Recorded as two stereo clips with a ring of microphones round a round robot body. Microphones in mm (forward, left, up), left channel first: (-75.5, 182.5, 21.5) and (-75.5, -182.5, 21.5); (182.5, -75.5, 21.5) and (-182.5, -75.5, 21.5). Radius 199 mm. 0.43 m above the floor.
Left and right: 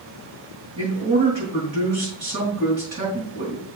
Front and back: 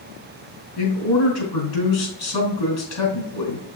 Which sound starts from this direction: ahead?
A man speaking, at 0.8 s.